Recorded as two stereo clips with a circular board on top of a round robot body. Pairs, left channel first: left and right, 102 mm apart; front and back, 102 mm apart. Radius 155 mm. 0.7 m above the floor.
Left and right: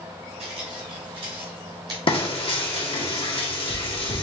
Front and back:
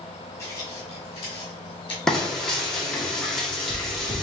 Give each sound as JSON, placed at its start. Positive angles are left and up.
{"t": 0.4, "sound": "footsteps", "azimuth_deg": -65, "distance_m": 0.9}
{"t": 2.1, "sound": "frying", "azimuth_deg": 85, "distance_m": 1.6}